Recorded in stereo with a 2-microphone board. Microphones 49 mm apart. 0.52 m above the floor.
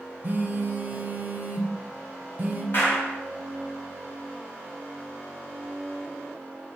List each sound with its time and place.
0.2 s a phone buzzing: 40° right (ahead or behind), 0.6 m
2.7 s a clap: 55° left (ahead or behind), 1.4 m